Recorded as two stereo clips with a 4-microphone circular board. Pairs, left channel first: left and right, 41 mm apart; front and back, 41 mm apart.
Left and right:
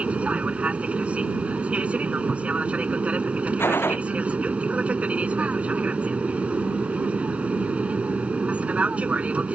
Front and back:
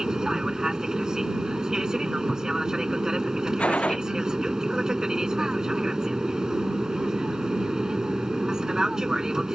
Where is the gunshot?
60° left.